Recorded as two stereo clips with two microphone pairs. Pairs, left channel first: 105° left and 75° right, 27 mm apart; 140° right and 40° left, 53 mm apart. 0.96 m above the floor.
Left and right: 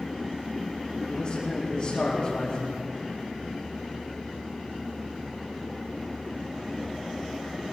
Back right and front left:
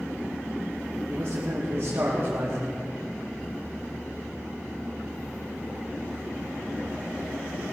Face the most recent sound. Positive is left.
turn(degrees=60)